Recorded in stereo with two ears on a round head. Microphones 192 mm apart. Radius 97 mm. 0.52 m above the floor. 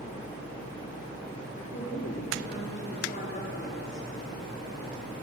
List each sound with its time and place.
1.6 s a woman speaking: 35° left (ahead or behind), 7 m